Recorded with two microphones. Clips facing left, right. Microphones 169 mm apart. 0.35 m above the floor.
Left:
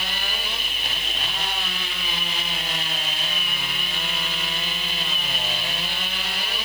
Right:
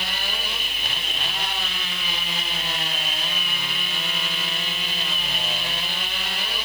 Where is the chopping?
I don't hear chopping.